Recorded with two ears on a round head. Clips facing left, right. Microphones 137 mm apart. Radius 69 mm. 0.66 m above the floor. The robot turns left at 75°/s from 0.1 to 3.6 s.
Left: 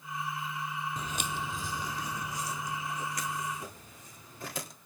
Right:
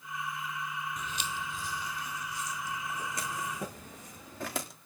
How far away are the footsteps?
About 1.1 m.